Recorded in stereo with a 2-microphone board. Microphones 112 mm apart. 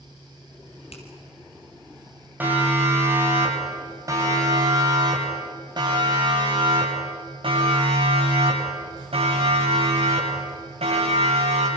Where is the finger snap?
65° left (ahead or behind), 4 m.